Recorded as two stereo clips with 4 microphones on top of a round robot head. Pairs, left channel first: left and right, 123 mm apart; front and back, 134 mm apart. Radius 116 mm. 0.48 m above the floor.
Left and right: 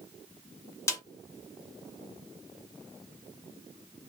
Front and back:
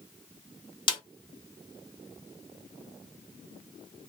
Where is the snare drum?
30° left, 1.2 m.